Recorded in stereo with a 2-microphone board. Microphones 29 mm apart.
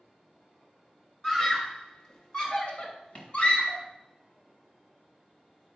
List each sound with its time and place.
1.2 s a scream: 15° left (ahead or behind), 2.5 m; by 3.8 s 45° left (ahead or behind), 3 m